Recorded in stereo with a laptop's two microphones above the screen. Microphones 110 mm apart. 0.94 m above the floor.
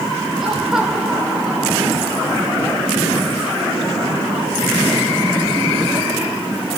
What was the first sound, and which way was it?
Laughter, 5° right (ahead or behind).